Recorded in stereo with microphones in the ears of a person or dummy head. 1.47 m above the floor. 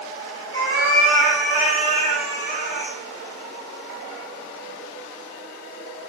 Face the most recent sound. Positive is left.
turn(degrees=35)  # may be behind; listen again after turning